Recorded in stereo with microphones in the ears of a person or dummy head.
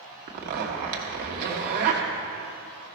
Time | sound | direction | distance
0.3 | a zipper | 50° right (ahead or behind) | 1.3 m